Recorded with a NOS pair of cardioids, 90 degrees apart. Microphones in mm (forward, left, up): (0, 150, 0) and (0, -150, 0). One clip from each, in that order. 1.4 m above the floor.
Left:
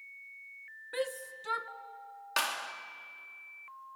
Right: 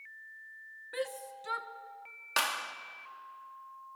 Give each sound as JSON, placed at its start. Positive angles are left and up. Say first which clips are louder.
{"t": 0.9, "sound": "a shout", "louder": "left 2 dB", "azimuth_deg": 10, "distance_m": 1.5}
{"t": 2.4, "sound": "a clap", "louder": "right 1 dB", "azimuth_deg": -15, "distance_m": 2.0}